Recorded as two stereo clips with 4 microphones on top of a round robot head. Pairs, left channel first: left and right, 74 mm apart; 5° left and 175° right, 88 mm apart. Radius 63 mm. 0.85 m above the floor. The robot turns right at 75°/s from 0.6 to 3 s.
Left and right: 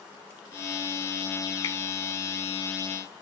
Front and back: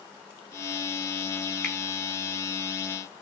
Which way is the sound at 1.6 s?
90° left.